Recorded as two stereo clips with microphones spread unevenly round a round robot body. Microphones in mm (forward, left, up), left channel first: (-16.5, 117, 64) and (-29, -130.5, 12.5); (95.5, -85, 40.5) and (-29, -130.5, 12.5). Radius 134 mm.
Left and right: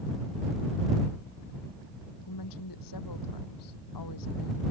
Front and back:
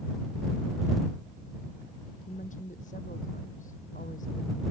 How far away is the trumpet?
I don't hear a trumpet.